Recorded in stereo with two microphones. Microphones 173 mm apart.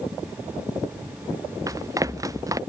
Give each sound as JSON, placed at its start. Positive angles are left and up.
{"t": 1.7, "sound": "running footsteps", "side_deg": -20}